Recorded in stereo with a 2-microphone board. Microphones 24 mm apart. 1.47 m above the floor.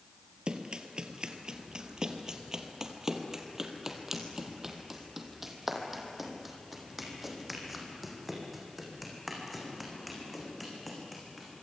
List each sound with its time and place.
0.5 s running footsteps: 40° right (ahead or behind), 1.8 m; by 11.6 s centre (ahead or behind), 6 m